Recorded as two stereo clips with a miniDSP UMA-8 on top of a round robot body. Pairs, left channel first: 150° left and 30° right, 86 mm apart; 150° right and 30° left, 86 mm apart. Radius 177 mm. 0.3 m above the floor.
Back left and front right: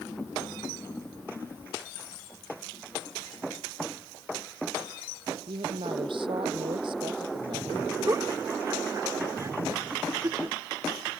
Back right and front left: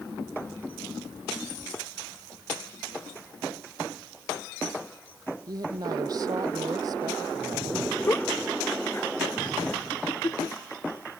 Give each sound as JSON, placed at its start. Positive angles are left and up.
{"t": 5.5, "sound": "a woman speaking", "azimuth_deg": -10}
{"t": 8.1, "sound": "a giggle", "azimuth_deg": -85}